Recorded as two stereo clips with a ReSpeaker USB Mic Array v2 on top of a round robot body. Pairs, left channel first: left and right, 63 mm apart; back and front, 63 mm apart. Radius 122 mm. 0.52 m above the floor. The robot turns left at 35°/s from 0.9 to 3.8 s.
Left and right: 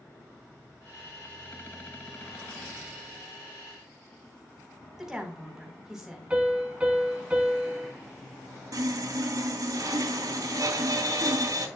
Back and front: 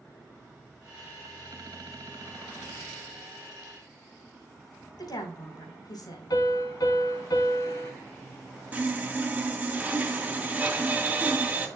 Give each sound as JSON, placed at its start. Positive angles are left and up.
{"t": 5.0, "sound": "a woman speaking", "azimuth_deg": -175, "distance_m": 4.0}
{"t": 6.3, "sound": "a piano", "azimuth_deg": -160, "distance_m": 3.5}
{"t": 8.7, "sound": "sawing", "azimuth_deg": -70, "distance_m": 2.5}